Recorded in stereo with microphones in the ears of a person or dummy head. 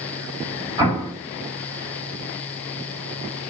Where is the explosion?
20° right (ahead or behind), 2 m.